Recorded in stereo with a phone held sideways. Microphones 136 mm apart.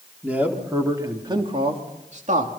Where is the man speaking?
10° right (ahead or behind), 3.5 m; by 2.6 s 70° right (ahead or behind), 3 m.